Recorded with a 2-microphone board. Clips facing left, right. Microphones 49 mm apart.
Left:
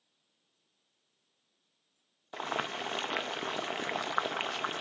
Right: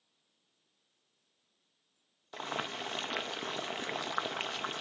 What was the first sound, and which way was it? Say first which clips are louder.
Boiling: left 3 dB; 15° left (ahead or behind).